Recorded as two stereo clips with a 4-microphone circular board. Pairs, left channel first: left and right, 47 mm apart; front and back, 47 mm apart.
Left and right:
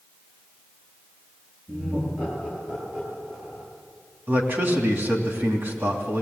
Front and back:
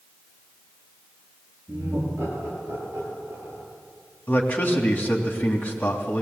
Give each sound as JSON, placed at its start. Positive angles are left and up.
{"t": 1.7, "sound": "laughter", "azimuth_deg": -135, "distance_m": 8.0}
{"t": 4.3, "sound": "a man speaking", "azimuth_deg": -50, "distance_m": 3.0}